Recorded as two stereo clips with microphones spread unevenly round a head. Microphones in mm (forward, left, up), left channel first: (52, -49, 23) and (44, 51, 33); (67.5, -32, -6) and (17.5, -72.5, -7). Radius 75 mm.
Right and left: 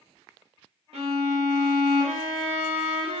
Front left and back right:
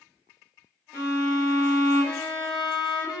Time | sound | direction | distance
0.9 | a violin | 70° left | 0.7 m